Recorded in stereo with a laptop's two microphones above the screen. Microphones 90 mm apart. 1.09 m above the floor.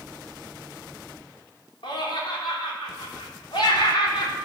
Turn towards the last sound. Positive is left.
turn(degrees=80)